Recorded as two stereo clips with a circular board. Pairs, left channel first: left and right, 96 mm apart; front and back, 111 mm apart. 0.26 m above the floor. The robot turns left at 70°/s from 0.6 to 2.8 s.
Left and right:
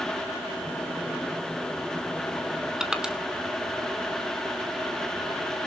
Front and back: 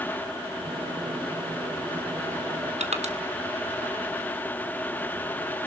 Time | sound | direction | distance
2.8 | crushing | 175° right | 1.8 m